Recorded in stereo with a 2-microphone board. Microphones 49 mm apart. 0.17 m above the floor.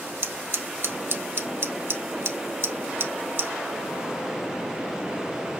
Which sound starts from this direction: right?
Scissors, at 0.2 s.